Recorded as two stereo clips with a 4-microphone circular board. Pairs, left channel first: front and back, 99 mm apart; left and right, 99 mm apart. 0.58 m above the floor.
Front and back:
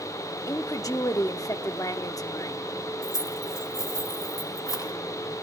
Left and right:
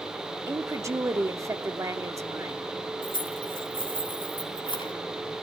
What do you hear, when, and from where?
0.5 s a woman speaking: 40° right, 0.8 m
3.0 s keys jangling: 50° left, 3 m